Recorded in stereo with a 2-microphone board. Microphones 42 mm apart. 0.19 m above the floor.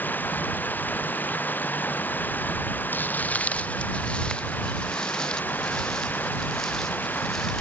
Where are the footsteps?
50° left (ahead or behind); by 7.6 s 5° left (ahead or behind).